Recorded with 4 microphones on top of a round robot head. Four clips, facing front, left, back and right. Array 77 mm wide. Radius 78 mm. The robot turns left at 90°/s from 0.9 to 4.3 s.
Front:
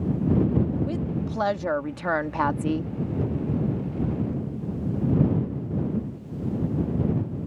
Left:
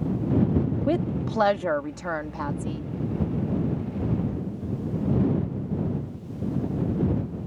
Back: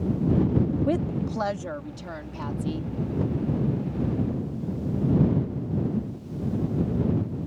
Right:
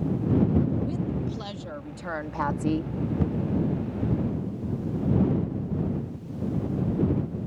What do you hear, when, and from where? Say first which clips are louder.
0.9 s a woman speaking: left 5 dB, back 3 dB; 125° left; by 2.9 s 60° right